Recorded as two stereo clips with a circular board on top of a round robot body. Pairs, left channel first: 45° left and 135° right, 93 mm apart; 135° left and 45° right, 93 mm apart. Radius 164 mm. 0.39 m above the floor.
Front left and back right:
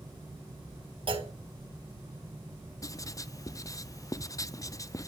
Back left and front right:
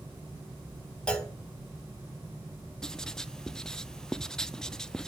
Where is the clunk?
145° right, 3 m.